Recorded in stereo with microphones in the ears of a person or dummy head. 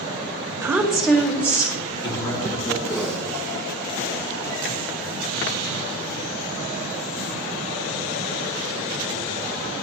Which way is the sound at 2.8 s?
5° right (ahead or behind).